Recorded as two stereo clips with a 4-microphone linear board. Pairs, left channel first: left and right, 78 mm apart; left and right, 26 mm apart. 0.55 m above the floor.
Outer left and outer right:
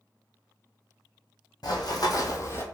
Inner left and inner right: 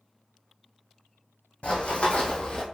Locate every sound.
1.6 s running footsteps: 60° left (ahead or behind), 1.1 m; by 2.6 s 30° left (ahead or behind), 0.7 m